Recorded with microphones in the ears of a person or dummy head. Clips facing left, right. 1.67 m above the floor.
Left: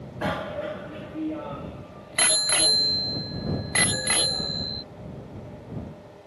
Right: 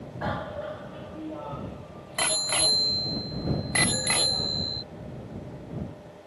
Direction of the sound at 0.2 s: 35° left (ahead or behind).